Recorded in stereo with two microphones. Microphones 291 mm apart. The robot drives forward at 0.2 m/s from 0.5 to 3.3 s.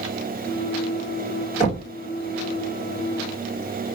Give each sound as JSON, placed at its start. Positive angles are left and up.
{"t": 1.6, "sound": "knocking", "side_deg": 25, "distance_m": 1.2}